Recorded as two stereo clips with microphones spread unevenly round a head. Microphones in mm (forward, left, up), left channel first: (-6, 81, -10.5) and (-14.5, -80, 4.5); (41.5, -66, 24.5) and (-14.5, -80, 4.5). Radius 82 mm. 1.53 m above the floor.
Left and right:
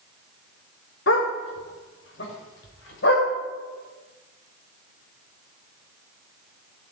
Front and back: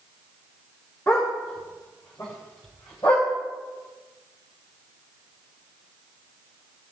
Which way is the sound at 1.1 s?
80° left.